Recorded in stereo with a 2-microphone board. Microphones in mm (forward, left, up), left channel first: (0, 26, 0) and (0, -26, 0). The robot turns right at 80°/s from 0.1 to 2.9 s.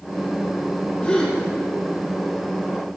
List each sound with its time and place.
1.0 s a gasp: 25° left (ahead or behind), 5 m; by 1.4 s 5° right (ahead or behind), 5 m